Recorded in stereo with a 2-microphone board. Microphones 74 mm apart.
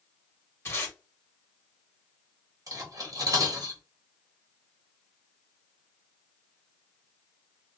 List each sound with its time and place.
0.7 s tape being pulled: 35° left (ahead or behind), 1.4 m
2.7 s cutlery clinking: 55° right (ahead or behind), 1.2 m